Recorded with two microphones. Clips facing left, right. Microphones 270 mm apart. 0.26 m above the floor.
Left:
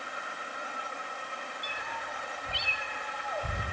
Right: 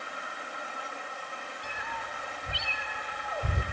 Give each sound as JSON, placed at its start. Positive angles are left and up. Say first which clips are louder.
{"t": 1.6, "sound": "a cat meowing", "louder": "even", "side_deg": -60, "distance_m": 4.0}